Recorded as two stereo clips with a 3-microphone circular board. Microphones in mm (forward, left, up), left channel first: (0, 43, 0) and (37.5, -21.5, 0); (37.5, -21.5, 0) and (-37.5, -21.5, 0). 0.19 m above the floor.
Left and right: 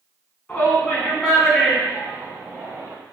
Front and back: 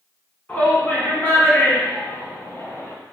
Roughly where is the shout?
Ahead left.